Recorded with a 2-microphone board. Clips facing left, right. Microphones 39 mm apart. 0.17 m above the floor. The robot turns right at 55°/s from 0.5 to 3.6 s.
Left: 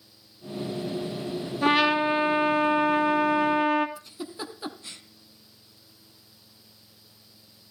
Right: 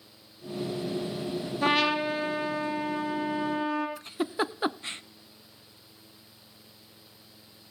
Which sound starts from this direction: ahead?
A trumpet, at 1.6 s.